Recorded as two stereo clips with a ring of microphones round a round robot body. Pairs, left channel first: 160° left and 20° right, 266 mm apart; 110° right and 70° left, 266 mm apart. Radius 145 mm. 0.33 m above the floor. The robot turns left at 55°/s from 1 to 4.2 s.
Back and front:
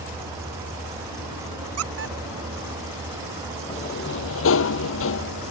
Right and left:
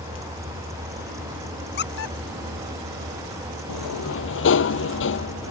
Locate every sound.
1.8 s a squeak: 60° right; by 2.2 s 80° right
3.7 s a sliding door: 130° right; by 5.5 s 160° right